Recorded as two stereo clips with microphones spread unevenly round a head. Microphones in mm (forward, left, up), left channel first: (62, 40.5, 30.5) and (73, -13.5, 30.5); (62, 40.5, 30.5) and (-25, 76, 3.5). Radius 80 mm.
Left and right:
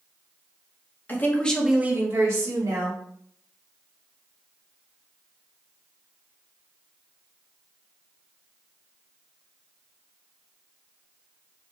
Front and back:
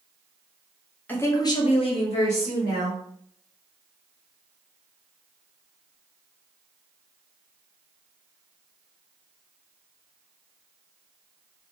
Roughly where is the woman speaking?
Ahead left.